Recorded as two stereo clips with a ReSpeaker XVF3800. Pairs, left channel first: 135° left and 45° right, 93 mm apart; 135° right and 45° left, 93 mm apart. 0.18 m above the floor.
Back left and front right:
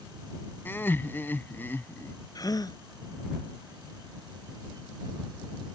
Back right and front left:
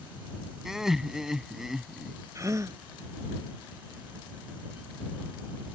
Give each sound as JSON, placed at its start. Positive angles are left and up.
{"t": 0.7, "sound": "laughter", "azimuth_deg": 125}
{"t": 2.4, "sound": "a gasp", "azimuth_deg": 95}